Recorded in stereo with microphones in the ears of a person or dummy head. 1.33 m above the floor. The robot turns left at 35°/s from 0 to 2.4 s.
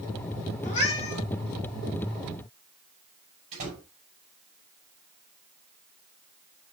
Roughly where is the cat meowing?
Left.